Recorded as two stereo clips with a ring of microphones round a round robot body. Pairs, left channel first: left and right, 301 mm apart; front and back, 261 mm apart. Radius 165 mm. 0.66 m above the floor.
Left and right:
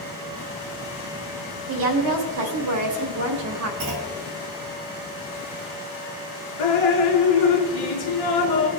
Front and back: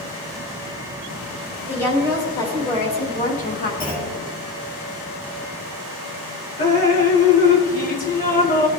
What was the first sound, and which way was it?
A woman speaking, 80° right.